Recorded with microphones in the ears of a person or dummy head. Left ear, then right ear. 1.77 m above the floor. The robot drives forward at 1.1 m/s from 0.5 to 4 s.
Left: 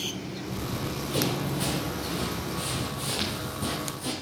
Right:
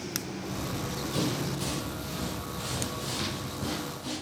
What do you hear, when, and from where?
0.6 s running footsteps: 15° left (ahead or behind), 2.5 m; by 4.1 s 30° left (ahead or behind), 3.5 m